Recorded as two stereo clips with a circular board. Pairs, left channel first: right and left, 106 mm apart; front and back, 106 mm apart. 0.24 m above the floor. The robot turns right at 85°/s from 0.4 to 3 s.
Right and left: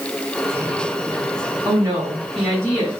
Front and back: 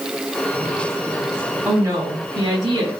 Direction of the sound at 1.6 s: 115° left.